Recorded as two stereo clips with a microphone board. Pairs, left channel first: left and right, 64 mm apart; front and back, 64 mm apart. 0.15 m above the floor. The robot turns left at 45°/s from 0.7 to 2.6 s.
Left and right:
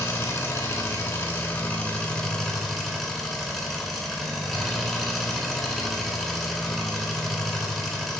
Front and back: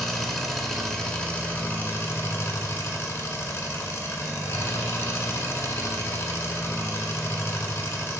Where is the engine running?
80° left, 0.8 m; by 8.2 s 5° right, 0.8 m.